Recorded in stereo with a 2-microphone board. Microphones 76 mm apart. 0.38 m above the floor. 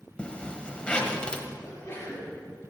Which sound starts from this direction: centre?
A zipper, at 0.2 s.